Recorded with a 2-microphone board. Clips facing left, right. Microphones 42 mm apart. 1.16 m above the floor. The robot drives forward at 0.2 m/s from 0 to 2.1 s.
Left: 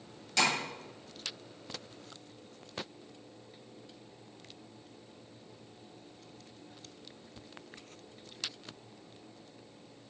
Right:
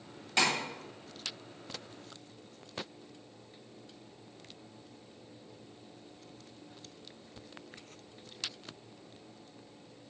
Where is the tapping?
20° right (ahead or behind), 2 m.